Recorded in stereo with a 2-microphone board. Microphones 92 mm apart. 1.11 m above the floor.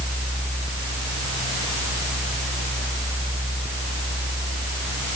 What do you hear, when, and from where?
Only background noise.